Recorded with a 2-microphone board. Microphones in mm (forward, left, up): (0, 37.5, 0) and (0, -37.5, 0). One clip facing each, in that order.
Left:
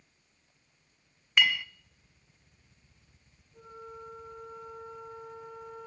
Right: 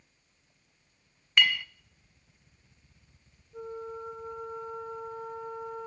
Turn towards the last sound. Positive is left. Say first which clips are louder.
# right 8 dB
turn(degrees=-70)  # may be behind; listen again after turning